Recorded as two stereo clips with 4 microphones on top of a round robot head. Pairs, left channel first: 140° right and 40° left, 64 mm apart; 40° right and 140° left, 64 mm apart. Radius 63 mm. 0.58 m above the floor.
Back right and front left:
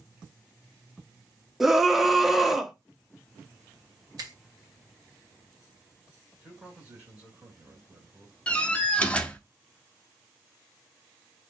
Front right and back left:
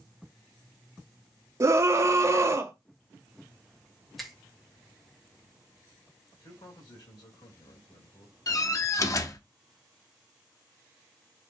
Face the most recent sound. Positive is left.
turn(degrees=-70)